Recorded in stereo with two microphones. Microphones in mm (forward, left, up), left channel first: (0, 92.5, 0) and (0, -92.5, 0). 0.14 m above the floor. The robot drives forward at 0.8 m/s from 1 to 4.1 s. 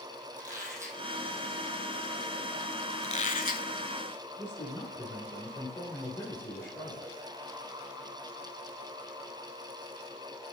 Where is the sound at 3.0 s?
40° left (ahead or behind), 0.8 m; by 3.7 s 50° left (ahead or behind), 0.7 m.